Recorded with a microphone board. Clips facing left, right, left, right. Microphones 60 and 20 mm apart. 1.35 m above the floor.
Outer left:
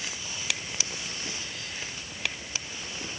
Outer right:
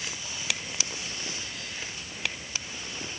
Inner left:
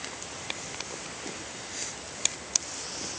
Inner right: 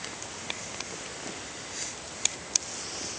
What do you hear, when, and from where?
Only background noise.